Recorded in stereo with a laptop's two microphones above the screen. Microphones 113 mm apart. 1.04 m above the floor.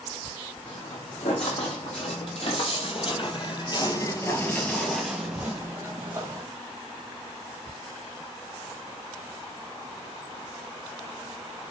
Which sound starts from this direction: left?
Footsteps, at 0.7 s.